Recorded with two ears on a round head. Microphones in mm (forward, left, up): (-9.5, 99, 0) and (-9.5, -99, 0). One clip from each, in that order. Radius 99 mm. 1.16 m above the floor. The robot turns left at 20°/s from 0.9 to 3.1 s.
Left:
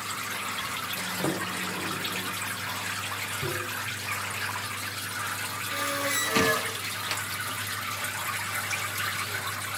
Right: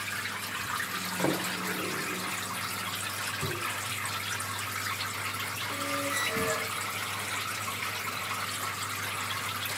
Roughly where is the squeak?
Left.